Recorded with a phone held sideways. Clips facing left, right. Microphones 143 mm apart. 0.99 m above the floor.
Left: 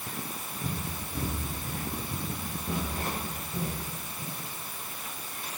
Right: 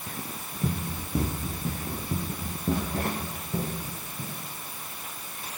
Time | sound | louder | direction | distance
0.6 | running footsteps | right 6 dB | 60° right (ahead or behind) | 7 m